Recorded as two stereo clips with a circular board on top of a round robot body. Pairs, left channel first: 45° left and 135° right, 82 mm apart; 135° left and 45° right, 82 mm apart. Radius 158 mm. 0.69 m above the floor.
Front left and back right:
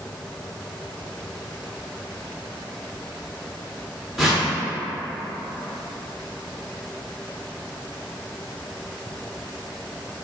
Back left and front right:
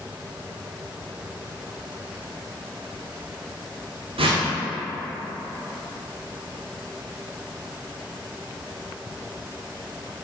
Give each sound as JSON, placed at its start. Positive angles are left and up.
{"t": 4.2, "sound": "a whoosh", "azimuth_deg": -45, "distance_m": 0.8}